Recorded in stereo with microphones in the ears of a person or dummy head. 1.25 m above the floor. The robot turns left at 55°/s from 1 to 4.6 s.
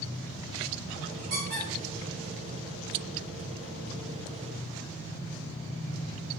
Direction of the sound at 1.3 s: 50° right (ahead or behind).